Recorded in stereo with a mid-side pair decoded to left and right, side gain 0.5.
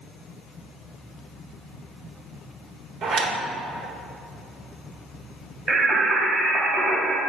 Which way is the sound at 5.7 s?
55° right.